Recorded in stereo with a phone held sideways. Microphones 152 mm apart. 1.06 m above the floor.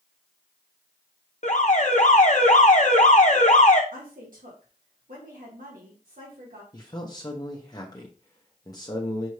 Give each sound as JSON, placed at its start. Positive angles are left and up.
{"t": 1.4, "sound": "an alarm", "side_deg": 55, "distance_m": 0.8}
{"t": 3.9, "sound": "a woman speaking", "side_deg": -85, "distance_m": 1.6}
{"t": 6.7, "sound": "a man speaking", "side_deg": 25, "distance_m": 0.7}